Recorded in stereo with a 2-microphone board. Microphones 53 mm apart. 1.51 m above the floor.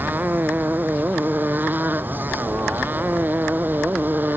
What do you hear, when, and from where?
0.0 s a motorcycle: 35° right (ahead or behind)